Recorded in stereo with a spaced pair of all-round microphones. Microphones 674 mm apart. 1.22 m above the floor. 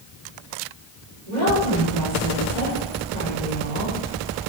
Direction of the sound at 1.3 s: 80° right.